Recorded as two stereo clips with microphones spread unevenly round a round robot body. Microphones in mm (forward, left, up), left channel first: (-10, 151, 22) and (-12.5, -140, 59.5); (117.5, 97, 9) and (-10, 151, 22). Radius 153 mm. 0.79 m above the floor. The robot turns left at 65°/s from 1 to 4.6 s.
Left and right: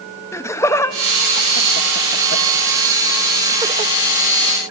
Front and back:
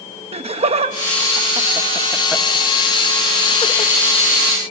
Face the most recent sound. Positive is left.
turn(degrees=-80)